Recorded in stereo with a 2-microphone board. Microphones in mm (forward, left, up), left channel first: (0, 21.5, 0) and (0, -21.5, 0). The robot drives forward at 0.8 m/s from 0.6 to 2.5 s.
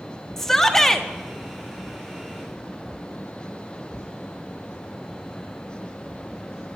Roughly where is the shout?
Centre.